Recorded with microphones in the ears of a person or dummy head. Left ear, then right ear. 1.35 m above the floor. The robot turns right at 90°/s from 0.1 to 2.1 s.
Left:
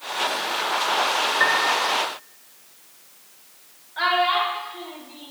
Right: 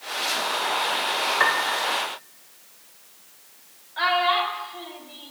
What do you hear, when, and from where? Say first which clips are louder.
1.4 s a piano: left 2 dB; 150° right, 1.7 m; by 1.7 s 120° right, 1.7 m
4.0 s a child speaking: left 1 dB; 15° right (ahead or behind), 4.5 m